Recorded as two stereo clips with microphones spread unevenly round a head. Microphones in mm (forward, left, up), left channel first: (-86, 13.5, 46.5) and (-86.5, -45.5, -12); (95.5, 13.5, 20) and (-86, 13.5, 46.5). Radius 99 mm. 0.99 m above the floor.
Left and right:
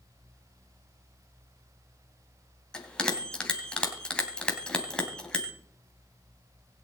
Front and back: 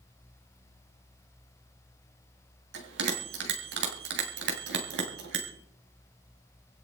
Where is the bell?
155° left, 3 m.